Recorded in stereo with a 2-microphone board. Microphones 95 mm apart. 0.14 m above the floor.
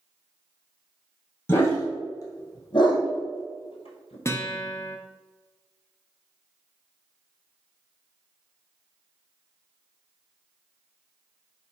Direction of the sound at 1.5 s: 20° left (ahead or behind).